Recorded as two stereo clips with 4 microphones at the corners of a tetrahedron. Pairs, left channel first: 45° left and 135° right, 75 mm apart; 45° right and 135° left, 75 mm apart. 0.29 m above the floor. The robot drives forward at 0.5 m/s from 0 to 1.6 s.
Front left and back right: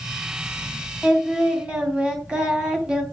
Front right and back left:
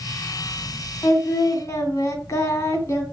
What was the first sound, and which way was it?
Singing, 55° right.